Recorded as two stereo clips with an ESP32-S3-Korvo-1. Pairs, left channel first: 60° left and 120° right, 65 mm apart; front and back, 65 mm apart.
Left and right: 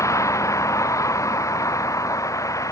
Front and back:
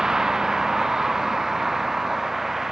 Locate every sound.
0.0 s a vehicle: 100° left; by 2.7 s 95° left